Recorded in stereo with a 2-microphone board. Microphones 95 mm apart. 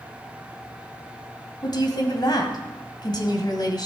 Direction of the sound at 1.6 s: 50° left (ahead or behind).